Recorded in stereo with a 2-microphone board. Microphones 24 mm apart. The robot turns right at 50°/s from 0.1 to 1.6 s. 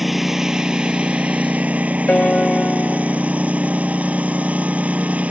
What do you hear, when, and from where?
0.0 s a lawn mower: 170° right; by 5.3 s 95° right
2.1 s a piano: 65° left (ahead or behind)